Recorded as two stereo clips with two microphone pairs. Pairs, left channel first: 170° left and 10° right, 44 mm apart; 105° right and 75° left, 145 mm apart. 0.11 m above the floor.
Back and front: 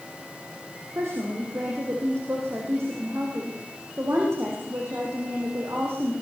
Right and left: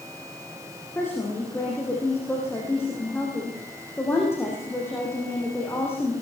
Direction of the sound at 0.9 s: 30° right.